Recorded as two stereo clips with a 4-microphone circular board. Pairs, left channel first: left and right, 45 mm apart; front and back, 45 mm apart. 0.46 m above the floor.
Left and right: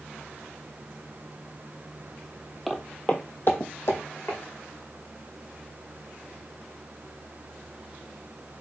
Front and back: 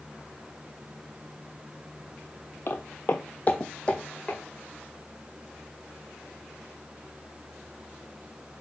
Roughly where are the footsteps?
Ahead.